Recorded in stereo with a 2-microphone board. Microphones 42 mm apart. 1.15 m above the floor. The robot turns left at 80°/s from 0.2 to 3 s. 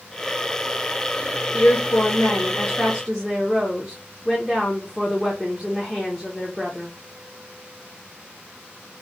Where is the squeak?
I don't hear a squeak.